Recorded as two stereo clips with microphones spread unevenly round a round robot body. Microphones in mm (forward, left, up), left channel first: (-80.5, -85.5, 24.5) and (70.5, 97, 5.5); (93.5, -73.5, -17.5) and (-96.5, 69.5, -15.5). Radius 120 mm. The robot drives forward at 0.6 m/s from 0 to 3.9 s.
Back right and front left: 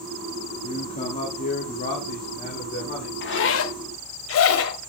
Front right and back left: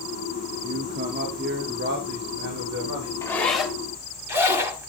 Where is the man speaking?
Straight behind, 1.3 m.